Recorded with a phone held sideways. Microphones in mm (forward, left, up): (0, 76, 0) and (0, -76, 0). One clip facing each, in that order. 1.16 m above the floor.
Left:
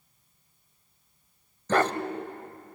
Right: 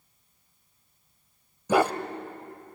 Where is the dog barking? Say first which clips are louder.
Right 2 dB; 10° right (ahead or behind), 1.1 m.